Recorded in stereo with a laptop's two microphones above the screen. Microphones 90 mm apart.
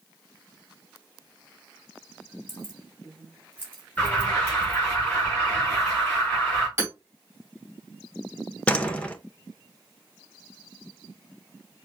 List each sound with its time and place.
2.5 s keys jangling: 30° left (ahead or behind), 1.4 m; by 4.8 s 15° left (ahead or behind), 2.5 m
4.0 s an alarm: 15° left (ahead or behind), 3 m
6.8 s hammering: 25° right (ahead or behind), 2 m
8.7 s a door slam: 15° left (ahead or behind), 0.9 m